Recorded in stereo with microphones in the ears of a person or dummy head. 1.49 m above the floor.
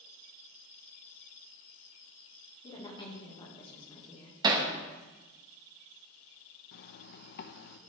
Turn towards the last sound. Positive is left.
turn(degrees=55)  # may be behind; listen again after turning